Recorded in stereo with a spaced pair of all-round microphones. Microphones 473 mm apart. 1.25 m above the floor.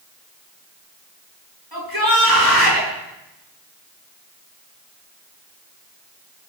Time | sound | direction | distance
1.7 | a shout | 50° right (ahead or behind) | 10 m